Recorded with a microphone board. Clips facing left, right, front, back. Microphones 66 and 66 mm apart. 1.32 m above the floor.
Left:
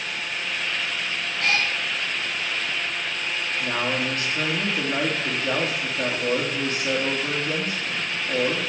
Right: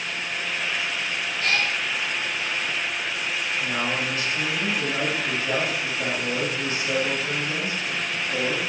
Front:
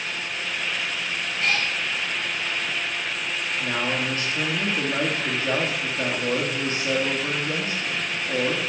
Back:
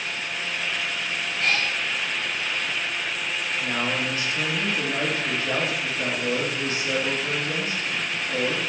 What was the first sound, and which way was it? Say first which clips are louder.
A cat meowing: left 1 dB, even; 90° left.